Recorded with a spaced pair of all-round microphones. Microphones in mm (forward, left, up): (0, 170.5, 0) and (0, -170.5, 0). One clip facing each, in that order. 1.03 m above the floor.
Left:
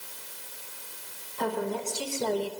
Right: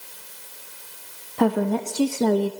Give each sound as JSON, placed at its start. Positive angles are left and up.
{"t": 1.4, "sound": "a woman speaking", "side_deg": -75, "distance_m": 1.7}